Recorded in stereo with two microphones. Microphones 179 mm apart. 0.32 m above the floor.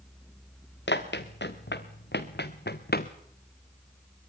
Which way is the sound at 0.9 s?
85° left.